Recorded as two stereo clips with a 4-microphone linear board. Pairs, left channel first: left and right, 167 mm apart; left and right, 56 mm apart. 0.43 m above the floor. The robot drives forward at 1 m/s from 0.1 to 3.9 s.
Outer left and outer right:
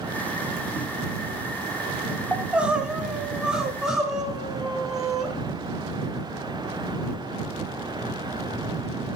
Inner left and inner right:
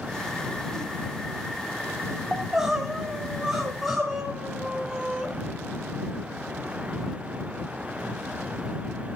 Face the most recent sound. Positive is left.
turn(degrees=-5)  # may be behind; listen again after turning